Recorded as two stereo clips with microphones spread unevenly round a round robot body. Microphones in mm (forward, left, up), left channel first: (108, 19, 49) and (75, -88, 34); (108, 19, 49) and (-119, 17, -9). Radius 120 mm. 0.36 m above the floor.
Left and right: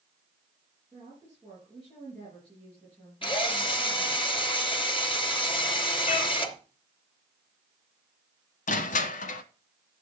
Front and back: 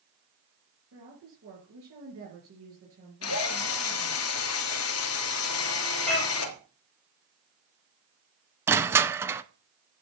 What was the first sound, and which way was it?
A woman speaking, 160° left.